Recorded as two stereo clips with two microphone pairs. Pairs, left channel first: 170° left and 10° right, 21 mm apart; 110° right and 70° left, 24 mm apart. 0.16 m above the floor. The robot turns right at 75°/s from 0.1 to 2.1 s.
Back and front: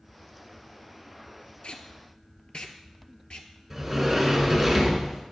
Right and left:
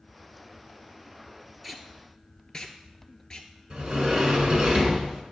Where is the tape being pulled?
150° left, 0.8 m; by 3.5 s 175° right, 0.8 m.